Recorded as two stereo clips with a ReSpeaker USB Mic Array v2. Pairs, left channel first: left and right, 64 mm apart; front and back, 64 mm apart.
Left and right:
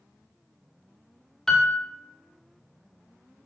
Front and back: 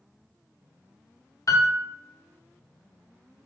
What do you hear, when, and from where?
1.5 s a piano: 10° left, 0.6 m